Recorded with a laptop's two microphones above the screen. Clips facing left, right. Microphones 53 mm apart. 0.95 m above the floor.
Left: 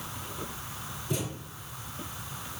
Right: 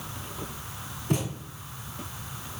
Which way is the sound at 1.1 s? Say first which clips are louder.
Right 5 dB; 55° right (ahead or behind).